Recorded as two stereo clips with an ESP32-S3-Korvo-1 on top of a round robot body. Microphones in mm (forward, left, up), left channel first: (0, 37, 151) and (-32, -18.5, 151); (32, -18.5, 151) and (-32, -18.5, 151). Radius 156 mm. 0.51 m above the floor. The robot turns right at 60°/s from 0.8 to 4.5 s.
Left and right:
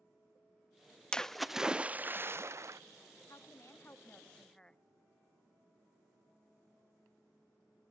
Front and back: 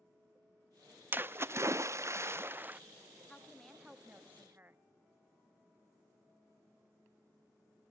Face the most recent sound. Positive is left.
turn(degrees=135)